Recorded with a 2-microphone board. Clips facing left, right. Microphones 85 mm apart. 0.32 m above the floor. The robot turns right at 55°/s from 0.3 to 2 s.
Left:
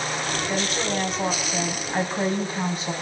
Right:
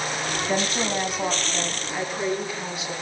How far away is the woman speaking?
About 2.5 m.